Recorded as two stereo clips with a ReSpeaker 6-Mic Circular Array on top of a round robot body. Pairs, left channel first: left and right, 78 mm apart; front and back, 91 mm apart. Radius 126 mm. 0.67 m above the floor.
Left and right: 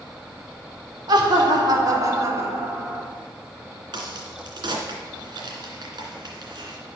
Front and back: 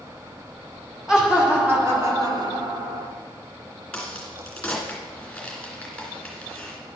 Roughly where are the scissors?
I don't hear scissors.